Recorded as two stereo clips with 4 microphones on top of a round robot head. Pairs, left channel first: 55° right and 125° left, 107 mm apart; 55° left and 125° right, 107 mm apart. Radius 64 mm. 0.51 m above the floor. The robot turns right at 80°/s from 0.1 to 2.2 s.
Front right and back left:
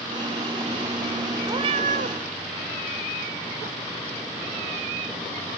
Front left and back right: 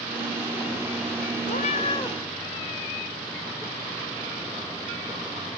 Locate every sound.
1.4 s a cat meowing: 65° left, 0.7 m; by 2.2 s 125° left, 0.7 m